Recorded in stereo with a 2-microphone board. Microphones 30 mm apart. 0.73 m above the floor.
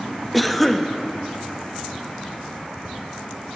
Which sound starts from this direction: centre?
A cough, at 0.3 s.